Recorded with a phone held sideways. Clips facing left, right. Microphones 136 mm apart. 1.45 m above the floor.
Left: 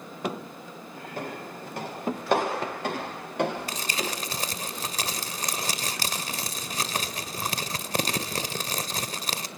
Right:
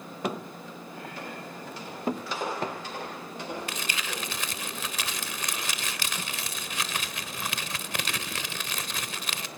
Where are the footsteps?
50° left (ahead or behind), 9 m; by 4.1 s 70° left (ahead or behind), 10.5 m.